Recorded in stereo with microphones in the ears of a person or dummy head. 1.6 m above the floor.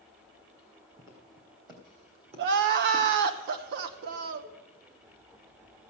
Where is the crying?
55° right (ahead or behind), 0.8 m.